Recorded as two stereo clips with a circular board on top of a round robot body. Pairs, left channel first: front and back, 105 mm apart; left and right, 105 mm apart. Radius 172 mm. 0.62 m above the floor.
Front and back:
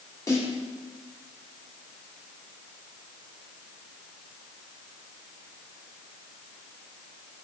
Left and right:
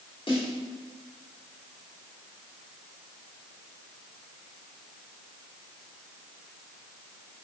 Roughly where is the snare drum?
Ahead left.